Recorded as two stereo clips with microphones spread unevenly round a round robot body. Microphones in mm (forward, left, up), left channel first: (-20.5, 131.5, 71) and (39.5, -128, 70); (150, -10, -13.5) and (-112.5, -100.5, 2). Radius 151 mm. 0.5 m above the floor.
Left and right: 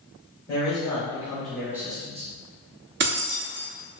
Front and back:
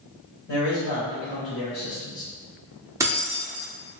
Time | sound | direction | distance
0.5 | a man speaking | 30° left | 1.6 m
3.0 | keys jangling | 85° right | 0.6 m